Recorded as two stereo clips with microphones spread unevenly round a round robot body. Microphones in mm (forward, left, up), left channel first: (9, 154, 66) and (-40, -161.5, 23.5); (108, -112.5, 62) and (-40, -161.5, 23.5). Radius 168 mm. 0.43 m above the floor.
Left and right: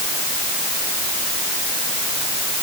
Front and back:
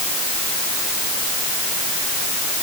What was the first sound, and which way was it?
Only background noise.